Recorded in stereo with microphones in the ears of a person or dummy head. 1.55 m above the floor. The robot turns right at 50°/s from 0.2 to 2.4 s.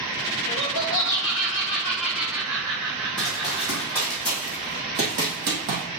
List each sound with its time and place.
0.5 s laughter: 95° left, 1.3 m; by 4.2 s 165° right, 1.3 m
3.2 s running footsteps: 5° left (ahead or behind), 2.5 m; by 5.8 s 50° right (ahead or behind), 2.5 m